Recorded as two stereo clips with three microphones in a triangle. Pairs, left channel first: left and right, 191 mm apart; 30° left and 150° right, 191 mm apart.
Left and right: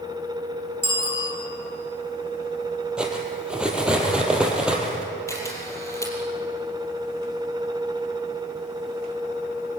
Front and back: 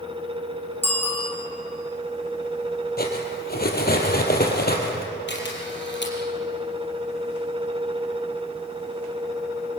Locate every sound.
0.8 s a bicycle bell: 110° left, 8 m
3.0 s cutlery clinking: 5° right, 3.5 m
5.3 s a camera shutter: 15° left, 4.5 m